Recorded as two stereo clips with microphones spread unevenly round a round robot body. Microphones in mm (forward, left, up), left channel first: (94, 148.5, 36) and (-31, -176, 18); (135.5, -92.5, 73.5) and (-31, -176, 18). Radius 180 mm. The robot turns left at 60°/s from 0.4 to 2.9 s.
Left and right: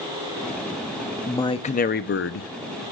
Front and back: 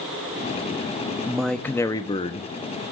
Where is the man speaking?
155° left, 0.7 m; by 2.5 s 80° left, 0.7 m.